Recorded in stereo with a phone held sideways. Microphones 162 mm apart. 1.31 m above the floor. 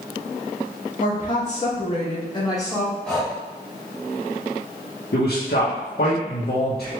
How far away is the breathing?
About 1.5 m.